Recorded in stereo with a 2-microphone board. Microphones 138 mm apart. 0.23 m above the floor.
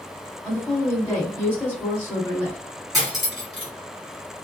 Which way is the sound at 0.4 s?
15° left (ahead or behind).